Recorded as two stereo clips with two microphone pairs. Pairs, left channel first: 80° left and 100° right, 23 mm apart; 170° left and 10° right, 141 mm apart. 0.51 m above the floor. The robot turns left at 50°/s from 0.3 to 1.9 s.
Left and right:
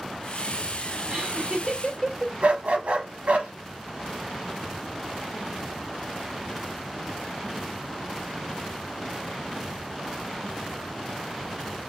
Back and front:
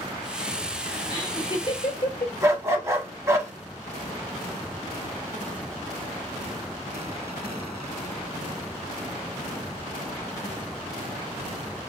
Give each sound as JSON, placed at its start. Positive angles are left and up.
{"t": 1.1, "sound": "laughter", "azimuth_deg": -140, "distance_m": 1.7}
{"t": 2.4, "sound": "a dog barking", "azimuth_deg": -80, "distance_m": 0.8}